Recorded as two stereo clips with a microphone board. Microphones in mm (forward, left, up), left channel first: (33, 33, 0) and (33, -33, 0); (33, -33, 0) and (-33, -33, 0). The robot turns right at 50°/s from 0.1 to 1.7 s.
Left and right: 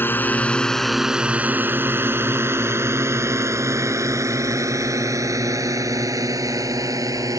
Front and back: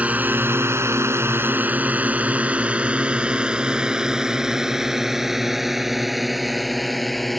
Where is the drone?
125° left; by 7.4 s 90° right.